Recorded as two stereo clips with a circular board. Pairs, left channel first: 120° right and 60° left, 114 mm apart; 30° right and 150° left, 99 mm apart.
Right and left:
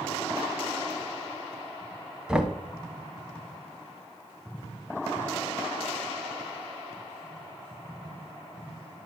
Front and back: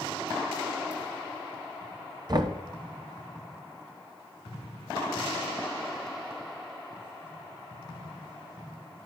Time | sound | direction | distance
2.3 | knocking | 140° left | 0.9 m